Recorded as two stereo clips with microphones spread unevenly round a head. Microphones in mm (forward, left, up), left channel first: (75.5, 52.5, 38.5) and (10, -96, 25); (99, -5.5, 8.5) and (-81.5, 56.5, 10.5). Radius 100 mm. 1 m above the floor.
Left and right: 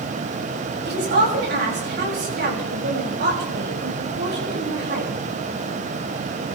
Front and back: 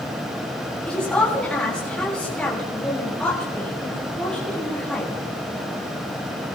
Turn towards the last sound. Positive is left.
turn(degrees=-105)